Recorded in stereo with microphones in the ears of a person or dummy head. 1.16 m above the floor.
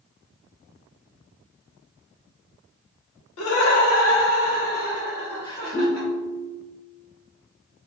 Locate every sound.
3.4 s laughter: 75° left (ahead or behind), 0.8 m; by 6.1 s 25° left (ahead or behind), 1.6 m
5.7 s a ringtone: 5° left (ahead or behind), 0.6 m